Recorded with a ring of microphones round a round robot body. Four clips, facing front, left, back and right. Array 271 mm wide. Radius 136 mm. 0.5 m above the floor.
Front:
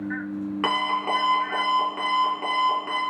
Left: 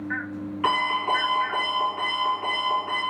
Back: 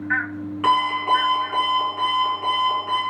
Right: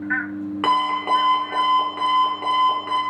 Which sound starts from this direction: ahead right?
An alarm clock, at 0.6 s.